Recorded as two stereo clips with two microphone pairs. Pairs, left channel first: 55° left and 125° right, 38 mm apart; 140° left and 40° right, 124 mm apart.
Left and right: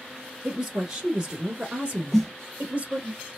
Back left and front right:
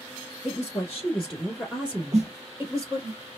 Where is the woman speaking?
160° left, 1.2 m; by 3.1 s 85° right, 1.4 m.